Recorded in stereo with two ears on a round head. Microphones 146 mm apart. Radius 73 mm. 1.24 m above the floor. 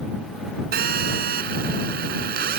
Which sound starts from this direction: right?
A phone buzzing, at 0.7 s.